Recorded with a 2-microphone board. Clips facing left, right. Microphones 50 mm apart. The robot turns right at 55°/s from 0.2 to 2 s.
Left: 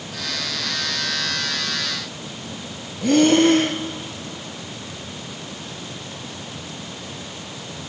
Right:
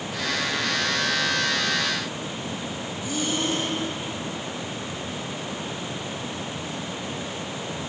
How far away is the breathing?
About 1.5 m.